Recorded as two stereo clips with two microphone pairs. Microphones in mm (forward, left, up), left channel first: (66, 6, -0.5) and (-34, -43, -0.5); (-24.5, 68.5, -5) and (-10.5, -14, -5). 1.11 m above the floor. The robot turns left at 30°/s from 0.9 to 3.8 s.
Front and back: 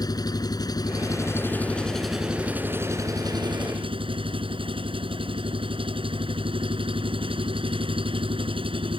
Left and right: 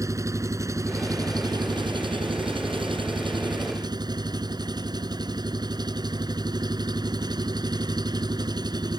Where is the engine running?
30° right; by 9.0 s 115° right.